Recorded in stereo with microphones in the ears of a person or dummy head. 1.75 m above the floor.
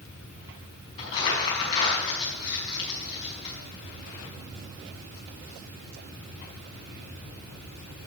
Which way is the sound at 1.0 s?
35° left (ahead or behind).